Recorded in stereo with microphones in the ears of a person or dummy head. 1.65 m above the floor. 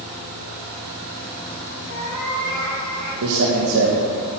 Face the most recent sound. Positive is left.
turn(degrees=-80)